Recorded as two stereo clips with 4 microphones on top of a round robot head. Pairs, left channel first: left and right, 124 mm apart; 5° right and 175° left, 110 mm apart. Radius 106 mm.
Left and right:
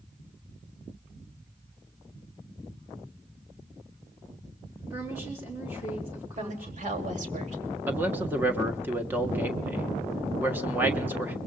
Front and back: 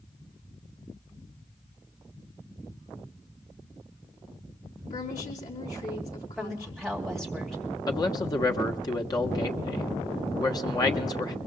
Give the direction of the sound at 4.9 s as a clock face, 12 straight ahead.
1 o'clock.